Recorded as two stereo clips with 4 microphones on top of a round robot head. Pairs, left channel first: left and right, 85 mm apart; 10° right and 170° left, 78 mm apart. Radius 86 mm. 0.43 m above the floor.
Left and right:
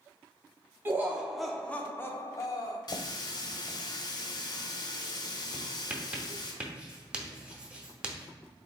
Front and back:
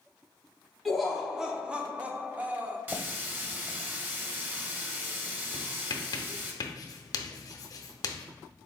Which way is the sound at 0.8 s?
100° right.